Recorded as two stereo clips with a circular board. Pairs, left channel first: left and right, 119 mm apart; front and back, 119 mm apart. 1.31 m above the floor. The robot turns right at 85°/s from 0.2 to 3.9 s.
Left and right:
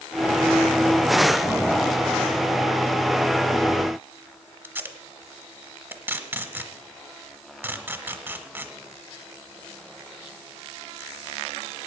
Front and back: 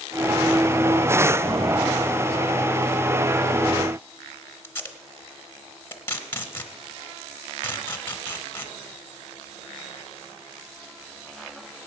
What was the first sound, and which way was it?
Tape being pulled, 45° right.